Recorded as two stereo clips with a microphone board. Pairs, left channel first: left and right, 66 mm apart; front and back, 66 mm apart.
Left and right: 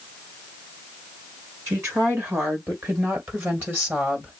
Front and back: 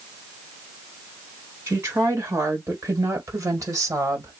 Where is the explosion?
No explosion in this recording.